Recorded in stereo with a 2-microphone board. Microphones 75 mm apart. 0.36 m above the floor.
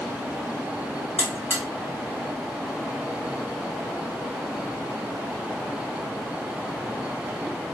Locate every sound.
1.2 s a buzzer: 20° right (ahead or behind), 1.3 m